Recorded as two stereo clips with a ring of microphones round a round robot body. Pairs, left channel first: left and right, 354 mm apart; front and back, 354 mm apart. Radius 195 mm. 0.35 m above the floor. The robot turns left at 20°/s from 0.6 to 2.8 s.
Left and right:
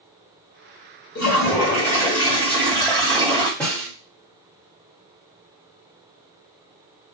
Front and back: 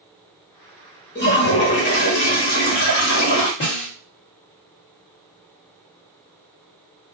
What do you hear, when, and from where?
1.1 s a toilet flushing: 50° left, 1.7 m; by 3.5 s 15° left, 1.7 m
3.6 s a snare drum: 5° left, 1.5 m